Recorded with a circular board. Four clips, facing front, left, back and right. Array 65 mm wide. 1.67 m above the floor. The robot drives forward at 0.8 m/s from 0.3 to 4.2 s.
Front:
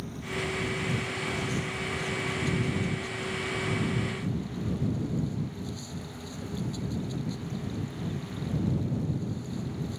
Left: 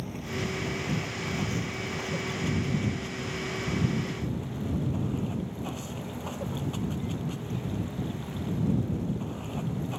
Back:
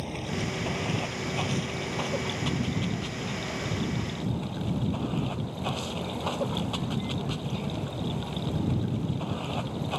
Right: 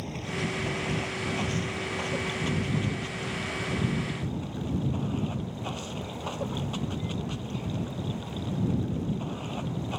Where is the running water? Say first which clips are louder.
Right 1 dB, back 1 dB; 165° right.